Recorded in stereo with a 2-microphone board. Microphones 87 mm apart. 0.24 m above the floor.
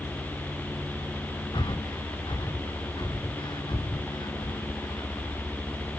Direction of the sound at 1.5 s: 60° left (ahead or behind).